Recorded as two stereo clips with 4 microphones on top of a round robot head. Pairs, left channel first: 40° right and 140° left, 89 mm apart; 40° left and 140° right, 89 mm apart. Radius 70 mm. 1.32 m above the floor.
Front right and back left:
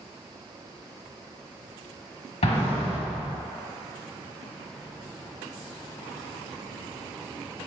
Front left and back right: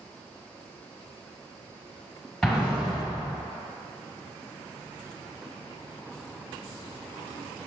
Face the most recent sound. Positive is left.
turn(degrees=-50)